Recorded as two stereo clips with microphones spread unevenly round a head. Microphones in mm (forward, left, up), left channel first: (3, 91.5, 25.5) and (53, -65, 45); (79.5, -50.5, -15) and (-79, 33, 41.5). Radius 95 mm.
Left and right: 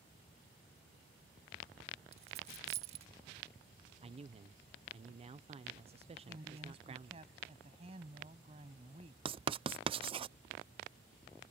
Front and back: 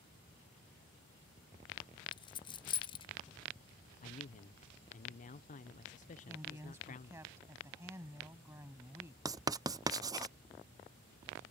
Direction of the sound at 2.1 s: 100° right.